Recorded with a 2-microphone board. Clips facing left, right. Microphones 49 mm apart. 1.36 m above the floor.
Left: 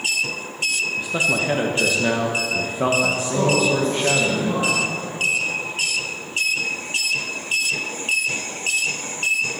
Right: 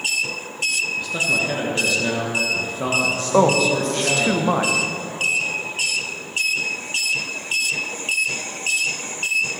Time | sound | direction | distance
1.0 | a man speaking | 20° left (ahead or behind) | 1.0 m
3.3 | a man speaking | 70° right (ahead or behind) | 1.3 m